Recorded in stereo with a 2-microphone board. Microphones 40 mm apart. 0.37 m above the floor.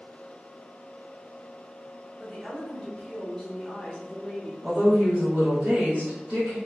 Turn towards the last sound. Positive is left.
turn(degrees=-30)  # may be behind; listen again after turning